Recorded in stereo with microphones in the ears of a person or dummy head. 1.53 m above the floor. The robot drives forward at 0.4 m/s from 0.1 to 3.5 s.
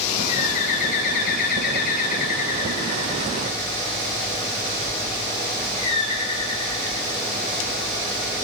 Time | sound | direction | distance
0.3 | a bird | 40° left (ahead or behind) | 1.3 m